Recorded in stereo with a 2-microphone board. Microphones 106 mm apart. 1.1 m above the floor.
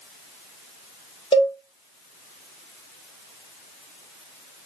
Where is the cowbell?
65° left (ahead or behind), 1.6 m.